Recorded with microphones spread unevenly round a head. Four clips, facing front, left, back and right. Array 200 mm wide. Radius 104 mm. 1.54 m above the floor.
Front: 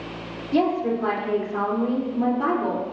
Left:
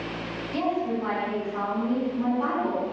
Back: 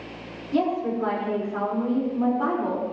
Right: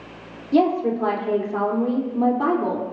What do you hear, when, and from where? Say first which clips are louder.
0.5 s a woman speaking: right 8 dB, front 2 dB; 75° right, 4.5 m